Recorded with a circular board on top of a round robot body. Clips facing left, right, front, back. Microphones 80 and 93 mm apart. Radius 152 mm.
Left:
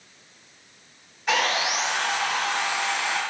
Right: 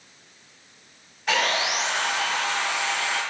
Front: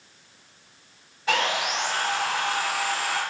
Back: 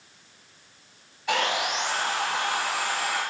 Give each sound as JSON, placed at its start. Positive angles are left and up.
{"t": 1.3, "sound": "sawing", "azimuth_deg": 5, "distance_m": 5.5}